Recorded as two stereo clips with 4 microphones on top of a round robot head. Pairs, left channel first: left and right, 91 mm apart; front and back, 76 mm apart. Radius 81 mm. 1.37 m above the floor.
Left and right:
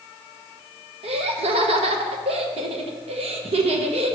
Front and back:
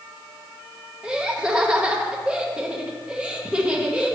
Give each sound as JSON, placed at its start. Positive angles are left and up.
{"t": 1.0, "sound": "laughter", "azimuth_deg": -95, "distance_m": 1.2}